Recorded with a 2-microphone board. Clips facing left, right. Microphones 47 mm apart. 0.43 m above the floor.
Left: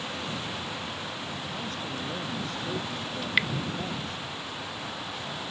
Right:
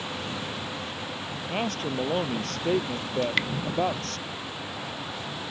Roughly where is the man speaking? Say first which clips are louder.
Right 5 dB; right.